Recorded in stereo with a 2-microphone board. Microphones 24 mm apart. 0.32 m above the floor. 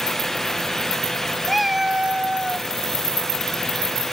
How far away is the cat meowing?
About 0.5 m.